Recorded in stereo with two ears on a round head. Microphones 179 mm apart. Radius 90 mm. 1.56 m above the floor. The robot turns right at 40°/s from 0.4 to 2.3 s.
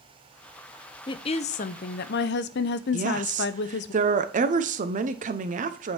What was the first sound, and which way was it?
A woman speaking, 25° left.